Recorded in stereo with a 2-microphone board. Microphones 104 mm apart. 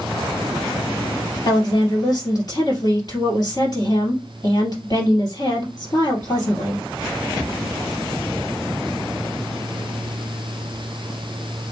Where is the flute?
I don't hear a flute.